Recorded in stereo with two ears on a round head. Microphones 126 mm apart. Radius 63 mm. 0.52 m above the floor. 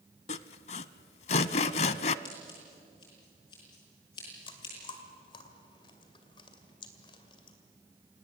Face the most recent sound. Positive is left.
turn(degrees=35)  # may be behind; listen again after turning